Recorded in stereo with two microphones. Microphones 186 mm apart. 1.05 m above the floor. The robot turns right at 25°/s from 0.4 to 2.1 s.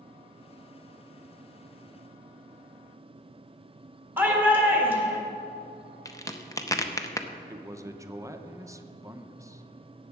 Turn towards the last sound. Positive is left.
turn(degrees=-15)  # may be behind; listen again after turning